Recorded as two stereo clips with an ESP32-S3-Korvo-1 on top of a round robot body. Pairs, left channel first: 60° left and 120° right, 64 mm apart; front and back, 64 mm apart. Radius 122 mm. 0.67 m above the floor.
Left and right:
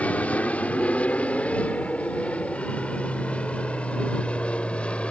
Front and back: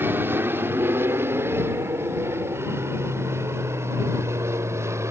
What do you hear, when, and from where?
0.0 s an aircraft: 125° left; by 5.1 s 135° left